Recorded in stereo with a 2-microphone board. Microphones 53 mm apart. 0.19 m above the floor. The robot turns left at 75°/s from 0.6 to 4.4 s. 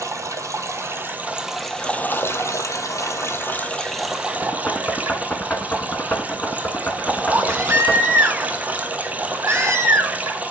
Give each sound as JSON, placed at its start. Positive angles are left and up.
{"t": 0.0, "sound": "running water", "azimuth_deg": -100, "distance_m": 1.2}
{"t": 4.4, "sound": "knocking", "side_deg": 30, "distance_m": 1.1}
{"t": 7.3, "sound": "a baby crying", "side_deg": -55, "distance_m": 1.6}